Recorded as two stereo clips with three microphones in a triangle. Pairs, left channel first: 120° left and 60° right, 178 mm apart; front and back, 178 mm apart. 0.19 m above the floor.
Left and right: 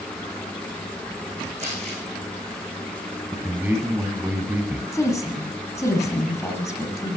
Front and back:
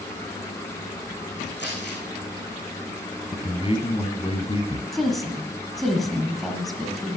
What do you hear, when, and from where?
1.6 s crumpling: 10° right, 5.5 m
3.3 s a man speaking: 10° left, 1.5 m
4.9 s a woman speaking: 90° left, 1.5 m